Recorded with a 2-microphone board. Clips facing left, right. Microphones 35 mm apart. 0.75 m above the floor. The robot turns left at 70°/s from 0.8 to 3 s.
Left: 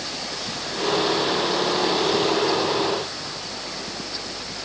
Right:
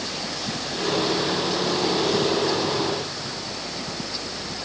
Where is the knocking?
No knocking in this recording.